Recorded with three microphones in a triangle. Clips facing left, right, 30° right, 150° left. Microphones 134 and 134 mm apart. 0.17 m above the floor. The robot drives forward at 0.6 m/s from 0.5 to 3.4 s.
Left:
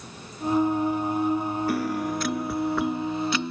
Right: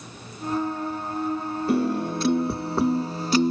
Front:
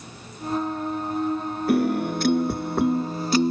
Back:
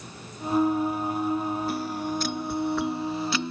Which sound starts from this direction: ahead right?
A piano, at 1.7 s.